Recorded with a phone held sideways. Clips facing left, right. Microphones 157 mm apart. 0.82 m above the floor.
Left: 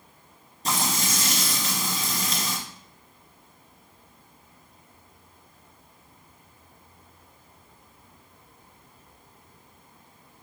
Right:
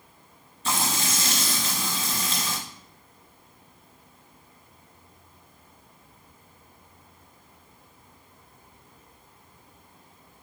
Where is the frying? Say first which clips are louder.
Even; 35° left (ahead or behind), 2.5 m.